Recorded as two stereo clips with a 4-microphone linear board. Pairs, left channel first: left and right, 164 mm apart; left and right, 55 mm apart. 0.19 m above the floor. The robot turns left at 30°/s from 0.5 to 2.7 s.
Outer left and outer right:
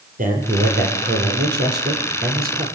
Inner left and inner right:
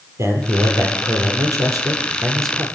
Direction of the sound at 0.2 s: 55° right.